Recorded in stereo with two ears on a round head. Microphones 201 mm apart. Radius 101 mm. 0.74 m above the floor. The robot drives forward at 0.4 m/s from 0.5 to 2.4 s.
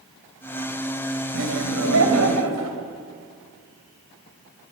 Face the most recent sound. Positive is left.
turn(degrees=-80)